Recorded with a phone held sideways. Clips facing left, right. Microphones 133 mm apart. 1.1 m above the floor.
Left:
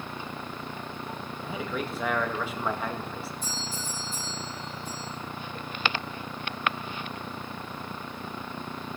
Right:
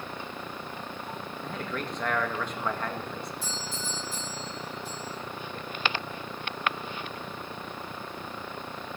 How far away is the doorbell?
About 9 m.